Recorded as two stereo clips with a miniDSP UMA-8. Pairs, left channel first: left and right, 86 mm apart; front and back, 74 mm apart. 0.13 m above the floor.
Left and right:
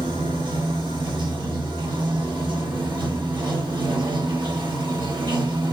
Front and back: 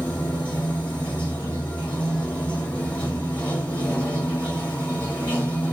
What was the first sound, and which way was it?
Running water, 75° right.